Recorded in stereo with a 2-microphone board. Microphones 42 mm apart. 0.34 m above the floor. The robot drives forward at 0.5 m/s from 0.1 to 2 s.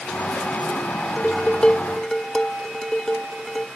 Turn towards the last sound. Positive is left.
turn(degrees=20)  # may be behind; listen again after turning